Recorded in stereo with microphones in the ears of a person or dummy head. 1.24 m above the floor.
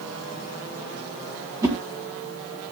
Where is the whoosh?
20° right (ahead or behind), 2.0 m.